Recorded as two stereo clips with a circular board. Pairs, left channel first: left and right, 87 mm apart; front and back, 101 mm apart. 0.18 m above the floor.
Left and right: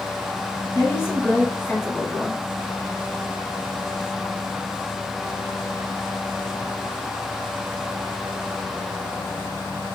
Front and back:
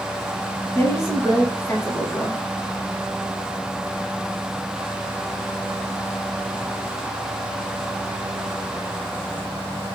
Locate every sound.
0.8 s a woman speaking: 45° left, 1.8 m